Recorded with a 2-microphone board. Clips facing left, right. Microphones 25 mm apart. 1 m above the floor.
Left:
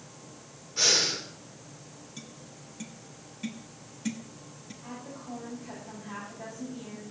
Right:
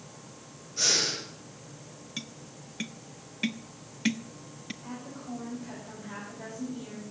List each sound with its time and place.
0.8 s breathing: 25° left (ahead or behind), 4.5 m
2.2 s tapping: 50° right (ahead or behind), 0.6 m
4.8 s a woman speaking: centre (ahead or behind), 6.5 m